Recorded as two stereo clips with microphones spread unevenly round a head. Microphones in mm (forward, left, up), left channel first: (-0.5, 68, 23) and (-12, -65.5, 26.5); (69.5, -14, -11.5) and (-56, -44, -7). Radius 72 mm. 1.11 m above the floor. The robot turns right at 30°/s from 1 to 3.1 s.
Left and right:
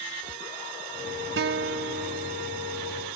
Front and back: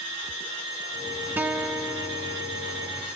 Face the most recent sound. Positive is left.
turn(degrees=-35)